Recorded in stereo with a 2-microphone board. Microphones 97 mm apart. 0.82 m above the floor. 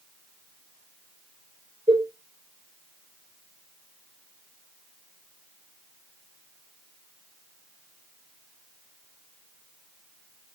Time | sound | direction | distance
1.9 | a cowbell | 65° right (ahead or behind) | 2.5 m